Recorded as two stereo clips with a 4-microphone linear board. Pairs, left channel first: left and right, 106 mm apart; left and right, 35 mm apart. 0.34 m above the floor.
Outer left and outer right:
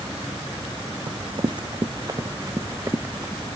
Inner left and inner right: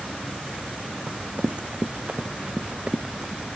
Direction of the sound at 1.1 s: 55° right (ahead or behind).